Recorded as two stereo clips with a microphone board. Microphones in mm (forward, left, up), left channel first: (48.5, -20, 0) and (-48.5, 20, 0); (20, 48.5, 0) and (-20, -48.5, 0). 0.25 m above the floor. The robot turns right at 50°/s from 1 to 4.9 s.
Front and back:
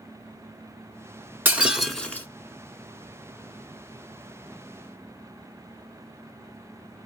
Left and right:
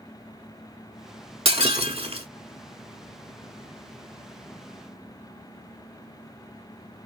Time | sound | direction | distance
1.4 | breaking glass | 135° right | 0.9 m